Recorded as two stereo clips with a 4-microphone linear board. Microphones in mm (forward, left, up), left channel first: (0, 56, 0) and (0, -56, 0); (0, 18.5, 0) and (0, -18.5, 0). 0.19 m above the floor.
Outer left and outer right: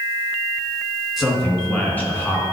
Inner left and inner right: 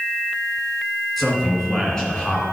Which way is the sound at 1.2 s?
5° right (ahead or behind).